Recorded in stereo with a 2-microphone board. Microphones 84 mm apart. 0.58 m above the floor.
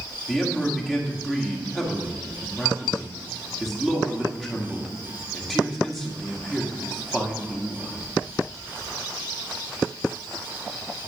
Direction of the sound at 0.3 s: Centre (ahead or behind).